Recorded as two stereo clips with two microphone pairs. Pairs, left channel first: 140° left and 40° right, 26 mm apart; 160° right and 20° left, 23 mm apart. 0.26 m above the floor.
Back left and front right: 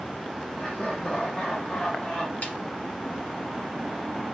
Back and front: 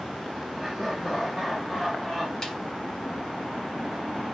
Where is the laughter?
100° left, 4 m; by 2.3 s 85° left, 3 m.